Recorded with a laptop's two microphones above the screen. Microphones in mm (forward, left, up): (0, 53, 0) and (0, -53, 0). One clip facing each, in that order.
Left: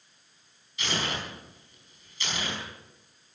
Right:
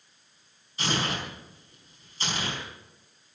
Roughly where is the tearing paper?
Right.